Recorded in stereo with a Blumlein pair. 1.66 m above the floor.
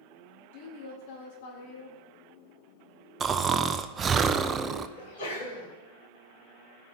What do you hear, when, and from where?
0.5 s a woman speaking: 55° left, 3 m
3.2 s snoring: 25° right, 0.6 m
5.0 s a sneeze: 70° left, 6 m